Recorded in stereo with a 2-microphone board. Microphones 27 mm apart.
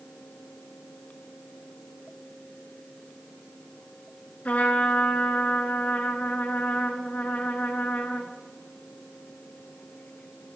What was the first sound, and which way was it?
A trumpet, 65° left (ahead or behind).